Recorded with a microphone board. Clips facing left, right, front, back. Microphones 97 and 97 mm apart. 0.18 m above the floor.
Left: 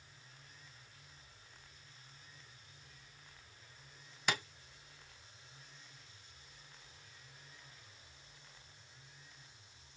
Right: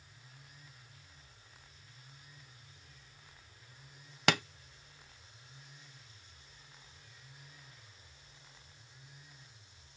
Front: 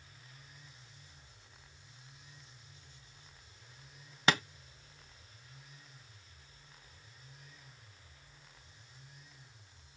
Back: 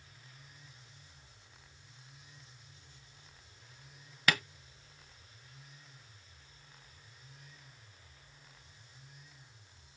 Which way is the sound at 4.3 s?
65° right.